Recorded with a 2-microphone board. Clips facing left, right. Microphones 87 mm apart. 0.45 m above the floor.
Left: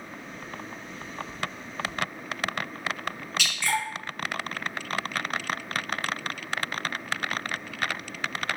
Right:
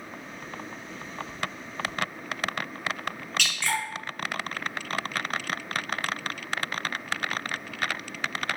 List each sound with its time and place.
3.4 s dripping: 10° left (ahead or behind), 1.7 m